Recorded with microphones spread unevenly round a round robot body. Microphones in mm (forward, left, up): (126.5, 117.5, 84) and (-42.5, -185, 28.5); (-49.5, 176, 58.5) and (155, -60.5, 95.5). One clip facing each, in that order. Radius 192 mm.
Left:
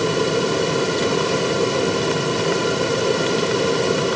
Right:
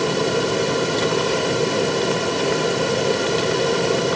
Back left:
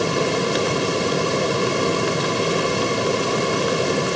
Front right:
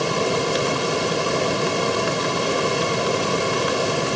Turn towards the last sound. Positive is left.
No sound to turn to.